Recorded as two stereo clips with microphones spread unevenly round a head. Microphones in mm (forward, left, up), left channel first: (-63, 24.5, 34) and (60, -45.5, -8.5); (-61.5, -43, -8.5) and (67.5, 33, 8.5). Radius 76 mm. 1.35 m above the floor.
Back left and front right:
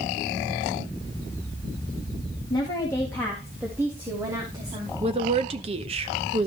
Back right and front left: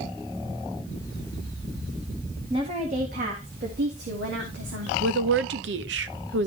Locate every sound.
2.5 s a woman speaking: 90° left, 1.8 m; by 4.9 s 35° left, 3 m
5.0 s a woman speaking: 25° left, 0.9 m